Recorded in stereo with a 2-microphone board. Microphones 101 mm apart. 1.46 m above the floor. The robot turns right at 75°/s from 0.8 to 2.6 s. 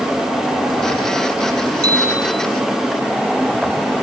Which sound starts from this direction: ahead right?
A bicycle bell, at 1.8 s.